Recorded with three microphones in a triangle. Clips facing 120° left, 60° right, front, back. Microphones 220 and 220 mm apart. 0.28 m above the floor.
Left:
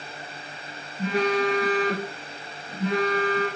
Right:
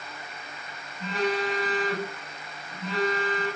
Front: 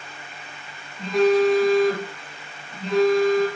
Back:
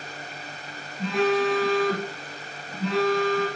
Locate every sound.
1.0 s a phone buzzing: 90° left, 3.5 m